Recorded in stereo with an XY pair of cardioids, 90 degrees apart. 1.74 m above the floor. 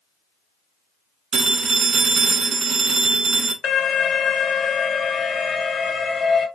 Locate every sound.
1.3 s a phone ringing: 60° right, 2 m
3.6 s an alarm: 45° left, 1.4 m